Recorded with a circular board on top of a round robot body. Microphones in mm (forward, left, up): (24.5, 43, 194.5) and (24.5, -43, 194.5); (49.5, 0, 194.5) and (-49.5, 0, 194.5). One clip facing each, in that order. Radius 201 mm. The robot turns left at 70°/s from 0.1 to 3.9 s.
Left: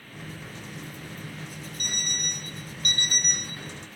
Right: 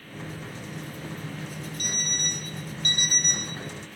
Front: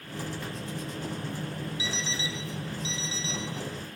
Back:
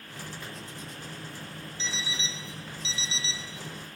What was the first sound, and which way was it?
An alarm clock, 80° right.